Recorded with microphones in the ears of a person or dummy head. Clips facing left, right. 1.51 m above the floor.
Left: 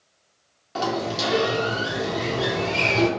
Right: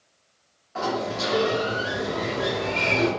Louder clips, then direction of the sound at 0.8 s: Left 1 dB; 50° left (ahead or behind).